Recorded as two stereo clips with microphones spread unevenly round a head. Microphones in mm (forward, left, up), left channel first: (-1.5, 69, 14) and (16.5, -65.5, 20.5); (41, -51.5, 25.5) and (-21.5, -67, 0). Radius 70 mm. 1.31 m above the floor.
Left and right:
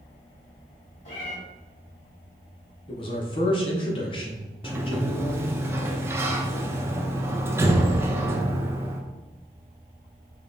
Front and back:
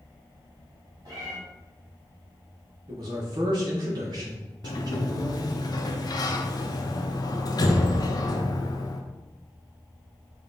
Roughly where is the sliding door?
Ahead.